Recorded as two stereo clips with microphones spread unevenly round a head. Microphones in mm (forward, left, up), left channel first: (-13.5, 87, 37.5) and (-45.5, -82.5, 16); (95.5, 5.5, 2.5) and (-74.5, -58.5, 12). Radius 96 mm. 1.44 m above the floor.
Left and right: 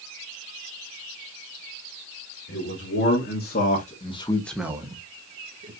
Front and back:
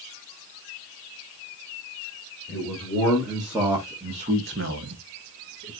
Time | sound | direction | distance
2.5 | a man speaking | 100° left | 2.5 m